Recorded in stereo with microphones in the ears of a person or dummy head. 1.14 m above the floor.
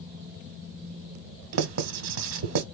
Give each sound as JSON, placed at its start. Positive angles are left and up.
{"t": 1.5, "sound": "writing", "side_deg": -65, "distance_m": 0.9}